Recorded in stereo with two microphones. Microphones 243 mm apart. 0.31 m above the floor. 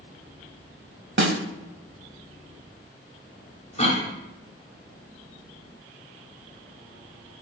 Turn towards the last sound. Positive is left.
turn(degrees=30)  # may be behind; listen again after turning